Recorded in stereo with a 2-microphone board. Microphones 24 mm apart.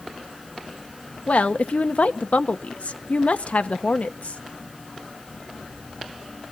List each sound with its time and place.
1.3 s a woman speaking: 70° left (ahead or behind), 1.0 m